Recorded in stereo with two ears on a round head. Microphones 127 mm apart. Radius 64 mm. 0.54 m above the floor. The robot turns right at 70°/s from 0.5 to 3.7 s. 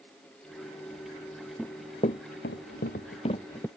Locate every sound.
1.6 s running footsteps: 5° left (ahead or behind); by 3.7 s 10° left (ahead or behind)